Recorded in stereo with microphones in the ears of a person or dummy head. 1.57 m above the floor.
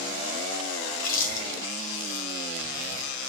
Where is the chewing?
50° left (ahead or behind), 3 m.